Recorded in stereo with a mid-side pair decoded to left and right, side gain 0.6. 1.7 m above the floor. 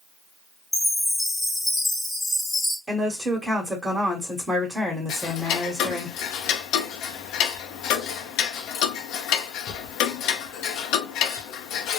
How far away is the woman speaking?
About 1.0 m.